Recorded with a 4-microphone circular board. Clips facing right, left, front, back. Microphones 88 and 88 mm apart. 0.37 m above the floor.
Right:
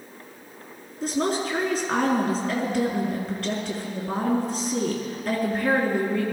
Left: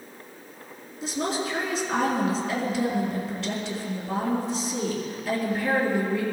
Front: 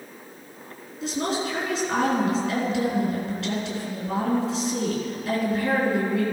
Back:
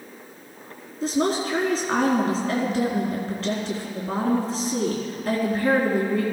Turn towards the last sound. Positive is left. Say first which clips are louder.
# right 3 dB, back 4 dB
turn(degrees=-130)